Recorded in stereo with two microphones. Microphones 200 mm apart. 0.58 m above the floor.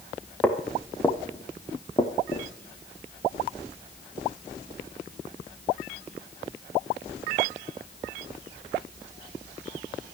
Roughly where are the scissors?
I don't hear scissors.